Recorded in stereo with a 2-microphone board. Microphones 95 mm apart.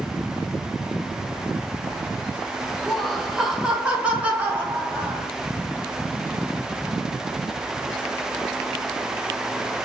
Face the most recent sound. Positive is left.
turn(degrees=-20)  # may be behind; listen again after turning